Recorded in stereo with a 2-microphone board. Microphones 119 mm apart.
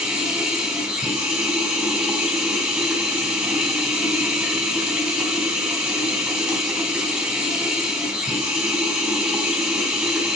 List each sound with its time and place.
0.0 s running water: 5° right (ahead or behind), 3 m